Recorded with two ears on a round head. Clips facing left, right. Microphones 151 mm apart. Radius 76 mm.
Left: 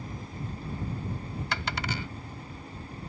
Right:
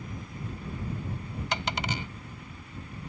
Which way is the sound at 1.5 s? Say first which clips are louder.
Right 2 dB; 20° right (ahead or behind).